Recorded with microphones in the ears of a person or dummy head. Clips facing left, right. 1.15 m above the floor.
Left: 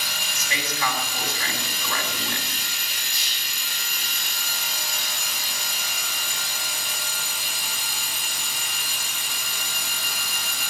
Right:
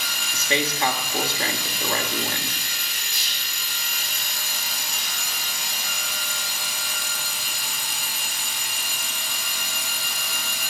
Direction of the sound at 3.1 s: 60° right (ahead or behind).